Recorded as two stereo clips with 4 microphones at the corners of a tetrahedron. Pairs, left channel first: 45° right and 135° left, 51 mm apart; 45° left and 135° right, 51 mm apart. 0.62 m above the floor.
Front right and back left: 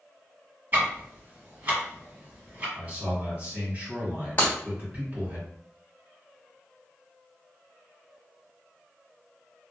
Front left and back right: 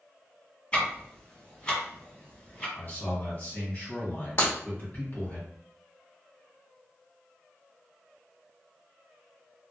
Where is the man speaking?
85° left, 1.7 m.